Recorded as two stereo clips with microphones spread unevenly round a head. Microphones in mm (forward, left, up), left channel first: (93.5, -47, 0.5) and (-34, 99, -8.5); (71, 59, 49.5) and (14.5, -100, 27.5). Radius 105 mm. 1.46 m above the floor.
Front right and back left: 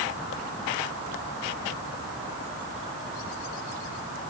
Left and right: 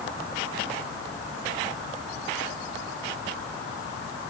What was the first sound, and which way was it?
Only background noise.